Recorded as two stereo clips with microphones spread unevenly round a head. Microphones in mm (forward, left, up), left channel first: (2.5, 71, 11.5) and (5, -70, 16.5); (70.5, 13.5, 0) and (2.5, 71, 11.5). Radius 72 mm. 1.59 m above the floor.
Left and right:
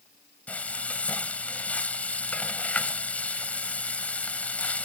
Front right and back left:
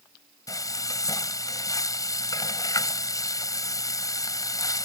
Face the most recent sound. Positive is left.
turn(degrees=10)